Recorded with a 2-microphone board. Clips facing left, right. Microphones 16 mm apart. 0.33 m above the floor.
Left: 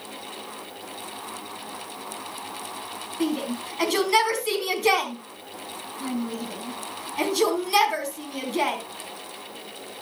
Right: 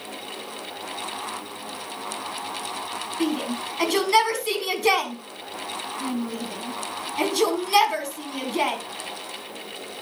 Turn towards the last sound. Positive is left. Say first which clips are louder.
# even
turn(degrees=-5)  # may be behind; listen again after turning